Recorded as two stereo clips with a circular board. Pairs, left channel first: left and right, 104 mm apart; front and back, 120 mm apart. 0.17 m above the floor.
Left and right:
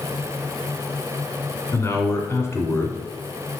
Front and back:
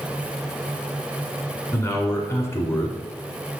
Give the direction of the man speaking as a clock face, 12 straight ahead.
10 o'clock.